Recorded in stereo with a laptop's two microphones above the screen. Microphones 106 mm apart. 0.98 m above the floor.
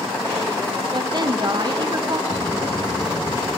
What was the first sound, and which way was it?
A woman speaking, 45° right (ahead or behind).